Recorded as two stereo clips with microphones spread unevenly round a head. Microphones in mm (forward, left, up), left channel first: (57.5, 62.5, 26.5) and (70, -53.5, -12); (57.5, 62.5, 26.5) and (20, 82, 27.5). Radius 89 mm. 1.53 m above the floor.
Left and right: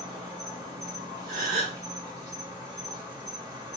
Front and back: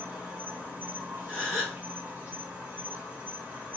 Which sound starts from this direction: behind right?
A gasp, at 1.3 s.